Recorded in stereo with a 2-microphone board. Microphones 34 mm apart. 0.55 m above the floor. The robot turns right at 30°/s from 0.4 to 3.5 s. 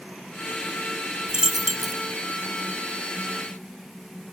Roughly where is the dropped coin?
Right.